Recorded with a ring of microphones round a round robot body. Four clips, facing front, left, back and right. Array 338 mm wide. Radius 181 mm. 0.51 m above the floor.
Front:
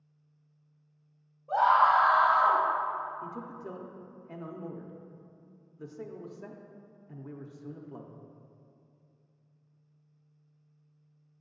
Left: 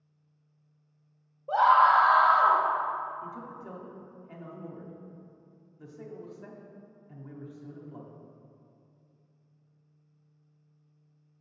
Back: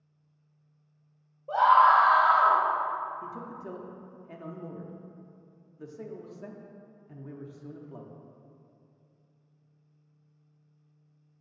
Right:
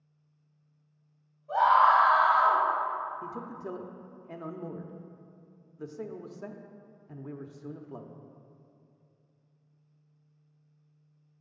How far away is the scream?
About 2 m.